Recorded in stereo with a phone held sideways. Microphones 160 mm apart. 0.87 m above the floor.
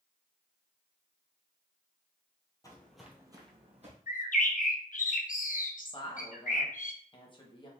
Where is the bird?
60° left (ahead or behind), 0.6 m.